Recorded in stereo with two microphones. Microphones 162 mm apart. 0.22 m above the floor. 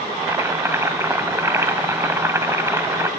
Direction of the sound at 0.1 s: 15° right (ahead or behind).